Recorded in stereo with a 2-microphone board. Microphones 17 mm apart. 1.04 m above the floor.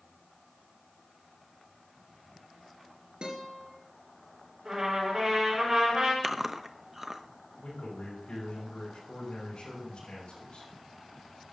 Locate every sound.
3.2 s a guitar: 65° right (ahead or behind), 4 m
4.7 s a trumpet: 35° right (ahead or behind), 6 m
6.2 s chewing: 20° right (ahead or behind), 0.6 m
7.6 s a man speaking: 75° left (ahead or behind), 7 m